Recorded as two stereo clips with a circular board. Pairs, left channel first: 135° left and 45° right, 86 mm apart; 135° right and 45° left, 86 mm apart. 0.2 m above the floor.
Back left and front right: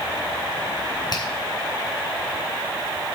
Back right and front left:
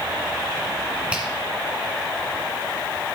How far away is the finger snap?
About 2.0 m.